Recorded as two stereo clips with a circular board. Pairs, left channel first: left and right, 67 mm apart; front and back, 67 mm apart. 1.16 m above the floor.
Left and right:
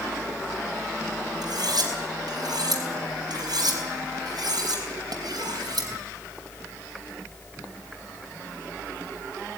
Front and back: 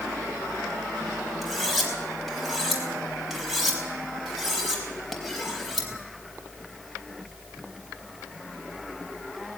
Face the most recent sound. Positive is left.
turn(degrees=-95)